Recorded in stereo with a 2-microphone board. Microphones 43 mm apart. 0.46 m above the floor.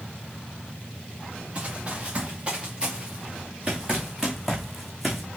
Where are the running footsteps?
30° right (ahead or behind), 3.5 m; by 5.2 s 5° right (ahead or behind), 2.0 m.